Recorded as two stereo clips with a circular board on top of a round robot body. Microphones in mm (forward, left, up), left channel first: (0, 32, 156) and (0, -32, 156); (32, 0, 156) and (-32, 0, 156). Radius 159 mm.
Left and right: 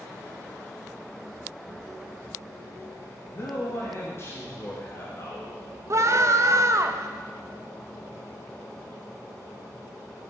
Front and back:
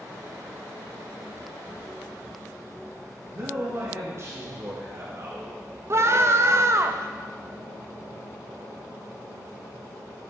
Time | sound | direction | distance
1.5 | a child speaking | 145° left | 3.5 m
3.2 | a man speaking | 140° left | 2 m
5.9 | a scream | 130° right | 0.8 m